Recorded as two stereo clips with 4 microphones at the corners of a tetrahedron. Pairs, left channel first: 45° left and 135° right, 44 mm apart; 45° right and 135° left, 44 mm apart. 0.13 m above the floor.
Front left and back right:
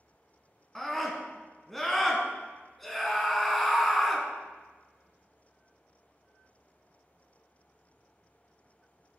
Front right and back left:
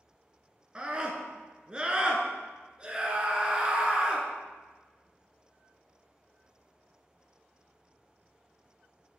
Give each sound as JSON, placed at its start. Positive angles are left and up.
{"t": 0.8, "sound": "a scream", "azimuth_deg": 125, "distance_m": 1.2}